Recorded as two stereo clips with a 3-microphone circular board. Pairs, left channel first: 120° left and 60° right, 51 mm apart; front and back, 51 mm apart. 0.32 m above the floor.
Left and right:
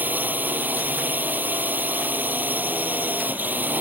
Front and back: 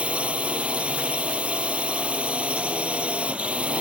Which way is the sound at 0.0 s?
115° right.